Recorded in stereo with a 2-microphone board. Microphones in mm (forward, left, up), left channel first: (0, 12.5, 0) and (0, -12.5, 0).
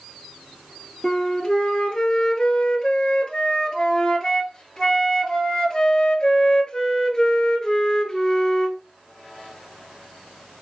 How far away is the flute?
About 1.0 m.